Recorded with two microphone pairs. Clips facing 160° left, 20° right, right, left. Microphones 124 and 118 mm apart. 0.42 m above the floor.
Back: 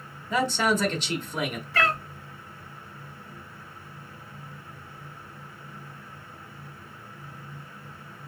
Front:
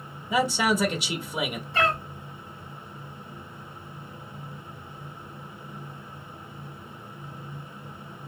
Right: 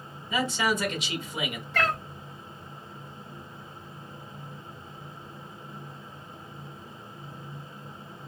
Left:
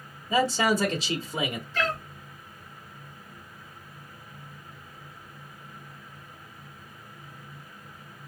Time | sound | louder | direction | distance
0.3 | a man speaking | front 1 dB, left 4 dB | 55° left | 1.1 m
1.7 | a cat meowing | front 1 dB, right 2 dB | 80° right | 1.1 m